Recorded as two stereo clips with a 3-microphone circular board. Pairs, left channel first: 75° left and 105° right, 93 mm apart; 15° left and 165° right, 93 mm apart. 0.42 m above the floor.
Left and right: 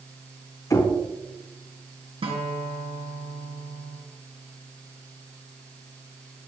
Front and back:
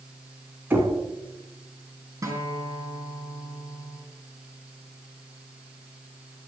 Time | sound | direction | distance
0.7 | knocking | 130° left | 2.5 m
2.2 | a guitar | 110° right | 2.5 m